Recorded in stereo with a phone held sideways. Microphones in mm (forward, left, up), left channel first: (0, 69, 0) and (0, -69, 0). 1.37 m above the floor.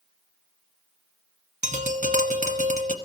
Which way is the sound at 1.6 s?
65° right (ahead or behind).